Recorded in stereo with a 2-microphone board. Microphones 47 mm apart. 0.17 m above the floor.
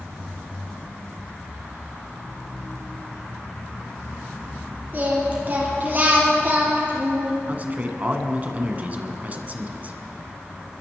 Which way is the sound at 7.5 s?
35° right (ahead or behind).